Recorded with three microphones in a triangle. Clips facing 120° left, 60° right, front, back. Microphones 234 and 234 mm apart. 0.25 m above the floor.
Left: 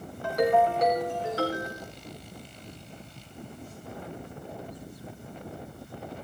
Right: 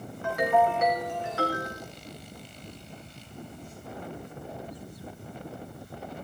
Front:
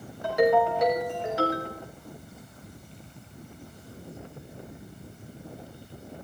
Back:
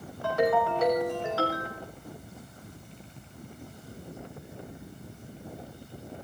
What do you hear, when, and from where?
0.2 s a ringtone: 70° left, 5 m